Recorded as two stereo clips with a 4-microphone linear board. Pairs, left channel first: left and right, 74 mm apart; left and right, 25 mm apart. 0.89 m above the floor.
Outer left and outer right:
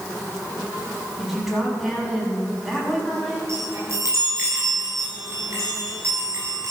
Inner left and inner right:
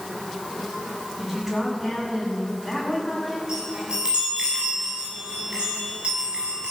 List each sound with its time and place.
1.2 s a woman speaking: 5° right (ahead or behind), 7 m
3.5 s a chime: 45° right (ahead or behind), 7 m